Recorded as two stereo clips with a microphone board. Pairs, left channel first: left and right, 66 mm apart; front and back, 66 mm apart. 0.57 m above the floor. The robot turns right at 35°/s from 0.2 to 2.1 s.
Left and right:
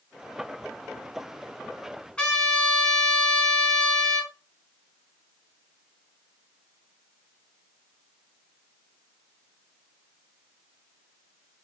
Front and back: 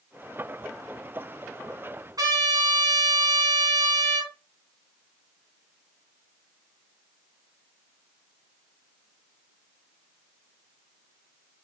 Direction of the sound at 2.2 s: 165° left.